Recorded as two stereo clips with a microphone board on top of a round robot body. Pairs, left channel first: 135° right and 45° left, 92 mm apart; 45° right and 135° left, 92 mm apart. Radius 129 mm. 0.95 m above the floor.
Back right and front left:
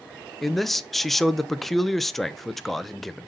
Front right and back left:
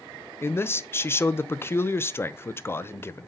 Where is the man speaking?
50° right, 0.9 m.